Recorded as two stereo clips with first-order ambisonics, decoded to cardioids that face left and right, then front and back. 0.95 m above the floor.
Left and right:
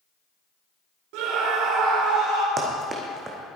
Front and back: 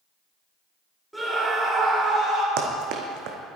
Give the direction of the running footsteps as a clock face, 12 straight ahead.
5 o'clock.